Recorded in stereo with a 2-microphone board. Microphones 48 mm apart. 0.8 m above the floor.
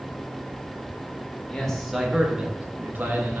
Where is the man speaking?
15° left (ahead or behind), 0.6 m; by 3.4 s 55° right (ahead or behind), 1.0 m.